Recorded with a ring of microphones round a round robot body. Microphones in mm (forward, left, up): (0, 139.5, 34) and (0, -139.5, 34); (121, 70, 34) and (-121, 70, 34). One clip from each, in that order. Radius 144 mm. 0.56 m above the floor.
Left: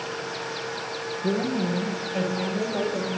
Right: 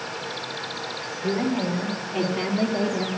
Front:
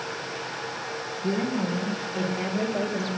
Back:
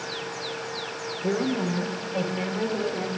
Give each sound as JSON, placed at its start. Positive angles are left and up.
{"t": 1.2, "sound": "a woman speaking", "azimuth_deg": -150, "distance_m": 1.8}